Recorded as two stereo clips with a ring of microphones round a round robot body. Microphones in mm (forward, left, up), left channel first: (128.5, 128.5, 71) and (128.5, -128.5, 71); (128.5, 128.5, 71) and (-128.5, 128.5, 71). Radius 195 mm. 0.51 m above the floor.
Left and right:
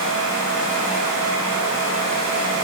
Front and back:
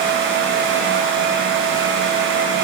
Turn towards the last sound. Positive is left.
No sound to turn to.